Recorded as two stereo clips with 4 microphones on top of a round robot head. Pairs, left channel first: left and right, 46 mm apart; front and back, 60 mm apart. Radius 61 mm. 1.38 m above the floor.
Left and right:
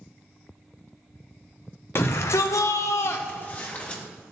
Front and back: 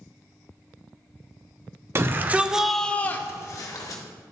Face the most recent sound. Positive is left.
turn(degrees=25)